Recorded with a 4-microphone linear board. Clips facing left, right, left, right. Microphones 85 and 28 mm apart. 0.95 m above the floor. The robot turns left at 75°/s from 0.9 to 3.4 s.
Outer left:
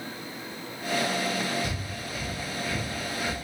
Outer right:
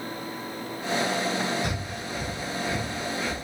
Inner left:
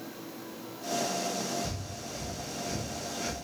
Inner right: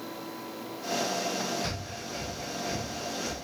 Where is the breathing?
55° right (ahead or behind), 0.6 m; by 3.4 s 20° left (ahead or behind), 0.6 m.